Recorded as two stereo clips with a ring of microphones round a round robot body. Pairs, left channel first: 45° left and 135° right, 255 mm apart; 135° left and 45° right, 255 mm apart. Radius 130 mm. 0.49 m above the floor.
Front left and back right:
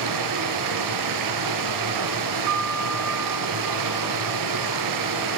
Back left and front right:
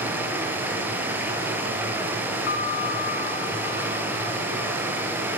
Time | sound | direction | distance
0.0 | running water | 130° right | 3 m
2.5 | a piano | 170° right | 1.9 m